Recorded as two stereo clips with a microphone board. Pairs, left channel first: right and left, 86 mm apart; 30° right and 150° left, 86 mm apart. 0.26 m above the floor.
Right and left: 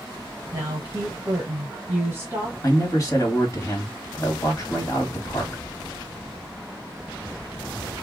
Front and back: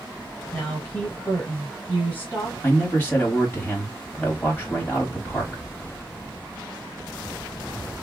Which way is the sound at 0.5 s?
35° left.